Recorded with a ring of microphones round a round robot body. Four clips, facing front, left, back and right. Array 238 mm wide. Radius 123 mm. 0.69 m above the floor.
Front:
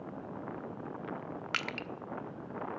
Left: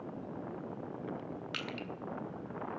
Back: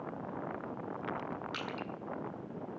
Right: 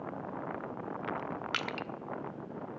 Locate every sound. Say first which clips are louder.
1.5 s crushing: right 4 dB, front 1 dB; 40° right, 1.1 m